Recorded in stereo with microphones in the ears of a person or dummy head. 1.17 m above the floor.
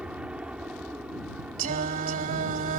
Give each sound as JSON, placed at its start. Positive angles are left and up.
{"t": 0.0, "sound": "an aircraft", "side_deg": -5}
{"t": 1.6, "sound": "singing", "side_deg": -45}